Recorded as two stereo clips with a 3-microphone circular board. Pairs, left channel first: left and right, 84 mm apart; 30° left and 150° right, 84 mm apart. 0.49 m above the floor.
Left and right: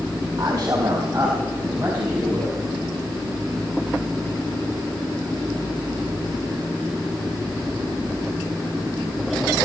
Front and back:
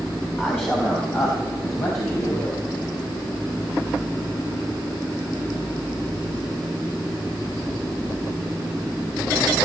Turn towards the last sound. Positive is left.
turn(degrees=-10)